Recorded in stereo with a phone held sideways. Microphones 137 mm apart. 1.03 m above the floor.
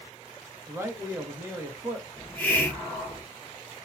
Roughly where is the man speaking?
Centre.